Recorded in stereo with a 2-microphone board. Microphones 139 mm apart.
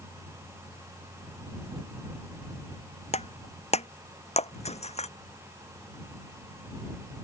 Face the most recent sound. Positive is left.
turn(degrees=50)  # may be behind; listen again after turning